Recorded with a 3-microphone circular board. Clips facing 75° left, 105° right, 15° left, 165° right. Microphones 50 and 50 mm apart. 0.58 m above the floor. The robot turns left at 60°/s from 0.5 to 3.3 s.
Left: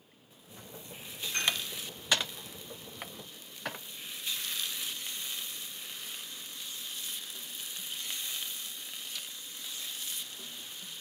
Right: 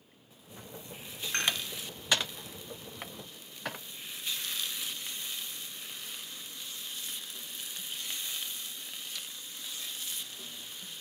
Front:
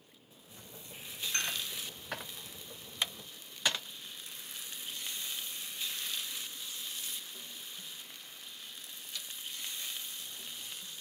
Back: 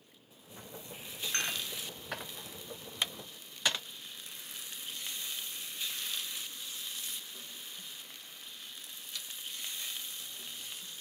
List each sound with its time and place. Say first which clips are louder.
1.3 s dishes clattering: right 1 dB, back 1 dB; 110° right, 2 m; by 1.6 s 125° right, 2 m